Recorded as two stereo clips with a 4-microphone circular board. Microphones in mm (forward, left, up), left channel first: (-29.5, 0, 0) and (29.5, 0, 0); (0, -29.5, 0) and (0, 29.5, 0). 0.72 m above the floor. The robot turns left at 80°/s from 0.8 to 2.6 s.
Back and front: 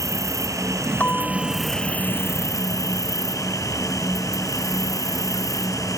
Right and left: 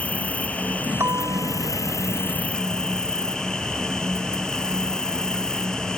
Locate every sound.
0.0 s an insect: 25° right; by 6.0 s 170° right
1.0 s a bell: 125° left; by 2.2 s 25° left